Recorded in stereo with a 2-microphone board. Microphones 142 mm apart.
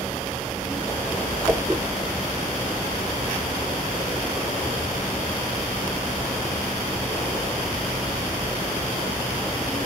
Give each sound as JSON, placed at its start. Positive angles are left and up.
{"t": 1.5, "sound": "a whoosh", "side_deg": -15, "distance_m": 0.6}